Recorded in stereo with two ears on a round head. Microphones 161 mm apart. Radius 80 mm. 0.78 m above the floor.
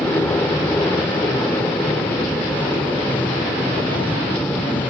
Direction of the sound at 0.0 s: 10° left (ahead or behind).